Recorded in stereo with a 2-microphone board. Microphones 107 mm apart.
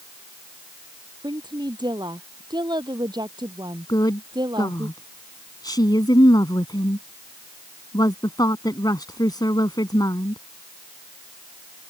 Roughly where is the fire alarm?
No fire alarm in this recording.